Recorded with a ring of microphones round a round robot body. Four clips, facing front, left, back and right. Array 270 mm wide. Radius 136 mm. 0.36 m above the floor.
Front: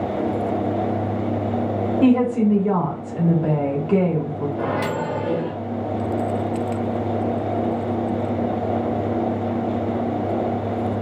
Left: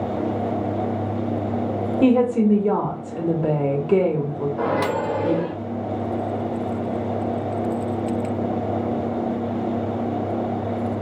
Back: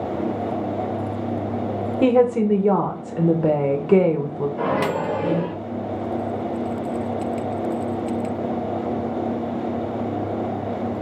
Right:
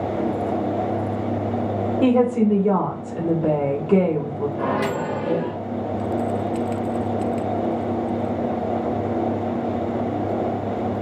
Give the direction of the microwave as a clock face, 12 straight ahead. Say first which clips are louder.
Left 2 dB, back 2 dB; 8 o'clock.